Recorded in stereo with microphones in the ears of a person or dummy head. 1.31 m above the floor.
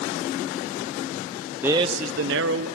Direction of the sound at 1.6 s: 5° right (ahead or behind).